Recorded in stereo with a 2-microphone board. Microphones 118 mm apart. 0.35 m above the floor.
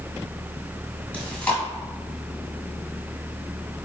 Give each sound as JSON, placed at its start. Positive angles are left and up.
{"t": 1.1, "sound": "chewing", "side_deg": 10, "distance_m": 1.7}